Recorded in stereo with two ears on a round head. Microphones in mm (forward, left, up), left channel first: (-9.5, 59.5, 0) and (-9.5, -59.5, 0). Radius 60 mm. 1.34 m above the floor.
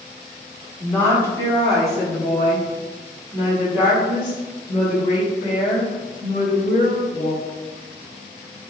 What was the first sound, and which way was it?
A woman speaking, 15° left (ahead or behind).